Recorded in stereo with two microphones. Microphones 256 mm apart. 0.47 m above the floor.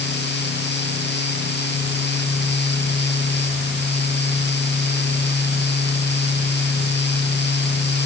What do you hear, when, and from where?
Only background noise.